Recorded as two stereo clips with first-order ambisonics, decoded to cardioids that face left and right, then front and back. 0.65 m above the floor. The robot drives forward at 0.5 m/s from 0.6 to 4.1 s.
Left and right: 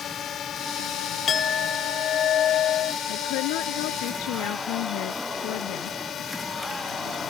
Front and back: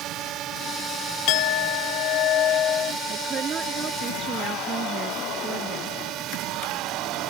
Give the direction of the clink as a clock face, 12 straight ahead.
11 o'clock.